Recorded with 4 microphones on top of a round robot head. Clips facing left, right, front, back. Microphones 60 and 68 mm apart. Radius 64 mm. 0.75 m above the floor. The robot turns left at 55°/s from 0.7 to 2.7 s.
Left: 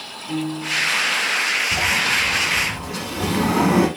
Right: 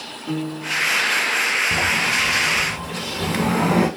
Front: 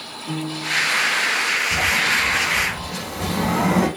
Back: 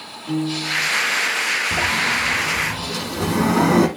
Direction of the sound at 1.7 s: 130° right.